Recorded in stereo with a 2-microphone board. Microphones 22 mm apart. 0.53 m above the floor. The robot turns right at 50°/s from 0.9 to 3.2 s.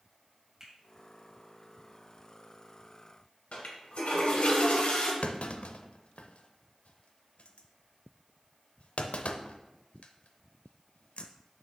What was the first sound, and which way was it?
A finger snap, 20° right (ahead or behind).